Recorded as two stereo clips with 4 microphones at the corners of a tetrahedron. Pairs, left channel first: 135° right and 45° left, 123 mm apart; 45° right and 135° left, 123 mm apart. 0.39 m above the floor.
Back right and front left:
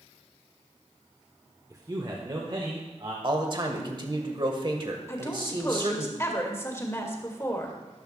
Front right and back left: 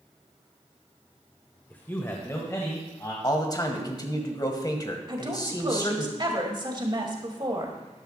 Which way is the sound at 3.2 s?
5° left.